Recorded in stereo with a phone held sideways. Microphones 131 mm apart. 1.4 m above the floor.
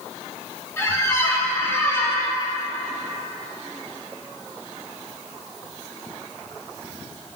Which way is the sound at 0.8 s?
20° left (ahead or behind).